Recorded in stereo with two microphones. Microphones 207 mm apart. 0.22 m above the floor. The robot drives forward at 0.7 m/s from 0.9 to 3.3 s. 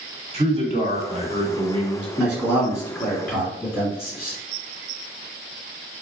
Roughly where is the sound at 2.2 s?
Centre.